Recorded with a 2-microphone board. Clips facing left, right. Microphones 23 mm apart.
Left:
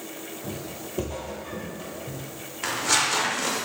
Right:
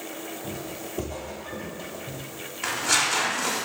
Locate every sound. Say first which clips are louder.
0.4 s footsteps: right 1 dB; 25° left (ahead or behind), 1.0 m; by 2.2 s 15° right (ahead or behind), 1.0 m
2.6 s tearing paper: even; 5° left (ahead or behind), 0.6 m